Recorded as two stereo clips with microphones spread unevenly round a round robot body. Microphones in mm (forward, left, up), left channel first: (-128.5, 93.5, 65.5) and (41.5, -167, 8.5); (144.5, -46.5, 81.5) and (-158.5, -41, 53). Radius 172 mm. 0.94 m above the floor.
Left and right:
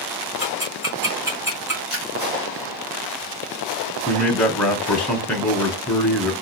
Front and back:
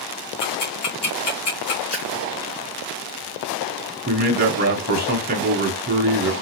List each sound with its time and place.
0.4 s ticking: 25° left, 1.8 m
1.9 s a splash: 40° left, 2 m
4.1 s a man speaking: 140° right, 0.8 m